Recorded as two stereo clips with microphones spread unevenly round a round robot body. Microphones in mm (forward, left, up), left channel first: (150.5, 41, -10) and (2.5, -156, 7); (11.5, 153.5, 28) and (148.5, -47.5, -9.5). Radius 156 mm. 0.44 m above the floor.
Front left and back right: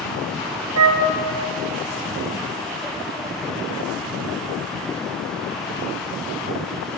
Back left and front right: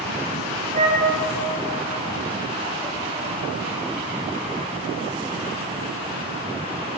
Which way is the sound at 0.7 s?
125° right.